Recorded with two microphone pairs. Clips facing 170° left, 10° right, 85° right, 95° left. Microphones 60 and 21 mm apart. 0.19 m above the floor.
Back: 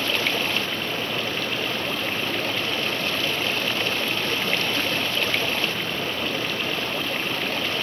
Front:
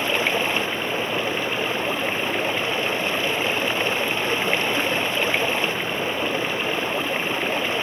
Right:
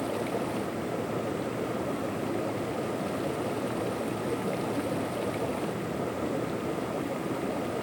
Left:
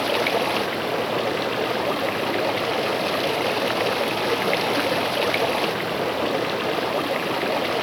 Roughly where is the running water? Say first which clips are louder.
Front 3 dB, left 9 dB; ahead left.